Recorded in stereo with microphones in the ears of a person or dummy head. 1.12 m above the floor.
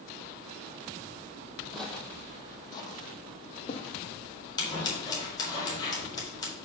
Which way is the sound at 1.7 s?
Centre (ahead or behind).